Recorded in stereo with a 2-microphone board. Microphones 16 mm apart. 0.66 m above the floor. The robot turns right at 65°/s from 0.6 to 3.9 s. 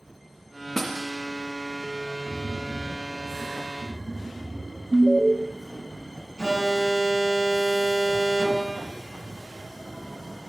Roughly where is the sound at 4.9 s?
Left.